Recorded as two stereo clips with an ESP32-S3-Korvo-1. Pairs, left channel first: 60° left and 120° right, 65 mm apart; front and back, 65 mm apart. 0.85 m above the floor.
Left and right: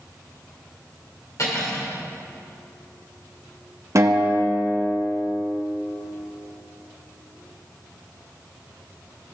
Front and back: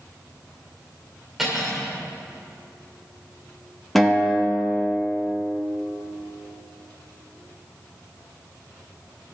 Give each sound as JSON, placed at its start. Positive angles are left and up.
{"t": 1.4, "sound": "cutlery clinking", "azimuth_deg": 95, "distance_m": 1.8}
{"t": 4.0, "sound": "a guitar", "azimuth_deg": -85, "distance_m": 1.0}